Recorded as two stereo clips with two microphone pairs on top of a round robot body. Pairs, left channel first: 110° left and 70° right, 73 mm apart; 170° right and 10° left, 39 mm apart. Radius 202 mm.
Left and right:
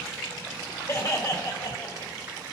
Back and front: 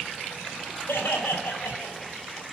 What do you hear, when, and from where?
0.9 s laughter: 155° left, 4 m; by 2.1 s 145° left, 3 m